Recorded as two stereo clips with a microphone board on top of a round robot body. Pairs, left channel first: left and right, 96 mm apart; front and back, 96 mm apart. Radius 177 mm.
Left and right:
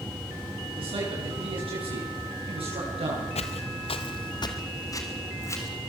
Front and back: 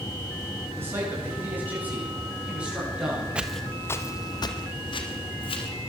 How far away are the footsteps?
About 1.0 m.